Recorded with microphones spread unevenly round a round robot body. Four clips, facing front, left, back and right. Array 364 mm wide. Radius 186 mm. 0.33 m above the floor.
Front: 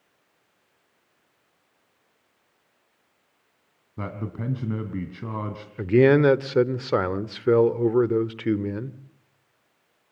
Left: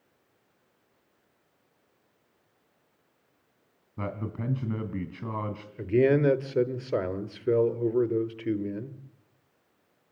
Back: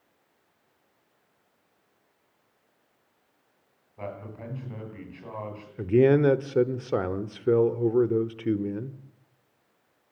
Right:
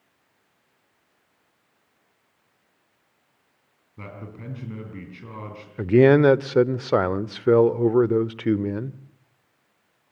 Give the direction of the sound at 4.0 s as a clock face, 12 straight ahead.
11 o'clock.